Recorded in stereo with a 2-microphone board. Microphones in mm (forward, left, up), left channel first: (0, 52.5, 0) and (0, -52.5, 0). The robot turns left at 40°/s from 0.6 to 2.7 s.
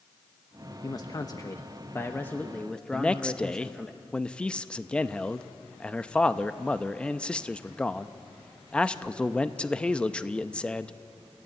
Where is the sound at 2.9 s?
10° left (ahead or behind), 0.6 m.